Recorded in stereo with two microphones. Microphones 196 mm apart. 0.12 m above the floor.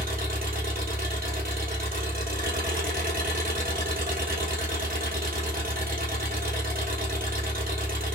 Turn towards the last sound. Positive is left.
turn(degrees=-50)  # may be behind; listen again after turning